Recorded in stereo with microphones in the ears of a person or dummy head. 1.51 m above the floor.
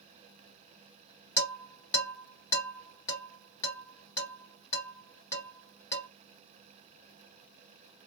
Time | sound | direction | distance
1.4 | dishes clattering | 20° left (ahead or behind) | 1.7 m